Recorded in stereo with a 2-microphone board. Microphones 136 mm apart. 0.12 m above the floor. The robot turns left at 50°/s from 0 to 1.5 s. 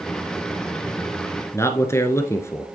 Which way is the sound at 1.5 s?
20° left (ahead or behind).